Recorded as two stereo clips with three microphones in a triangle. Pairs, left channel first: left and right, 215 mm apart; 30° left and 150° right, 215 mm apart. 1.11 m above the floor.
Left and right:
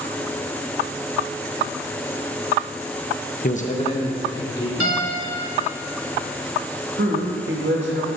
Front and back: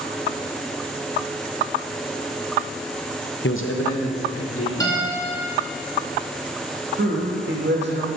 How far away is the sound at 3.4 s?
About 0.5 m.